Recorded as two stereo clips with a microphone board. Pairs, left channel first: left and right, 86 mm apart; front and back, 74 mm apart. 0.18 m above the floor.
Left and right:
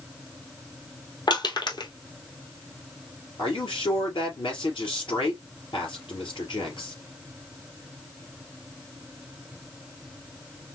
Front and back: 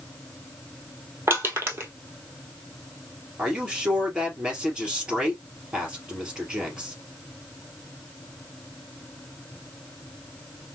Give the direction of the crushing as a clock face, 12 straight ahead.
8 o'clock.